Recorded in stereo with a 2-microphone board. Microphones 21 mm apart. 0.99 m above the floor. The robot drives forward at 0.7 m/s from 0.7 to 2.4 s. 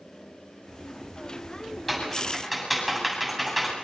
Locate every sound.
1.9 s typing on a keyboard: 5° left (ahead or behind), 8 m